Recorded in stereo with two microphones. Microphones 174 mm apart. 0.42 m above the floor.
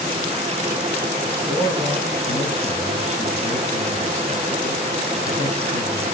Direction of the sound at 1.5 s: 30° left (ahead or behind).